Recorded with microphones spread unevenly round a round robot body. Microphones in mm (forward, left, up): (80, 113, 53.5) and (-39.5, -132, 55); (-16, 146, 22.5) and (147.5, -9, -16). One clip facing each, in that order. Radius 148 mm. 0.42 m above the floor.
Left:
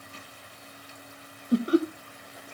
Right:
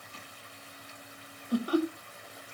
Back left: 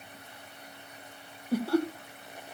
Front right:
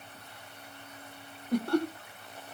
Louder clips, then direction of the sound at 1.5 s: Left 5 dB, back left 1 dB; 40° left.